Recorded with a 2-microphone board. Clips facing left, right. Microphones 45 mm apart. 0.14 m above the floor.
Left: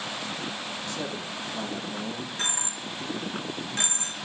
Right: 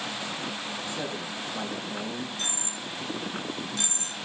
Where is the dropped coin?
40° left (ahead or behind), 3 m.